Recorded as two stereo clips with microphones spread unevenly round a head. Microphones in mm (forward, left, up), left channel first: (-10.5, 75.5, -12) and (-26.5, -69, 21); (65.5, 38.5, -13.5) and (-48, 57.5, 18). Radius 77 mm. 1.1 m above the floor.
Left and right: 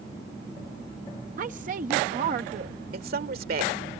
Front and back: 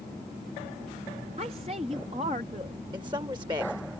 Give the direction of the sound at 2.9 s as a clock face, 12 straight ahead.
4 o'clock.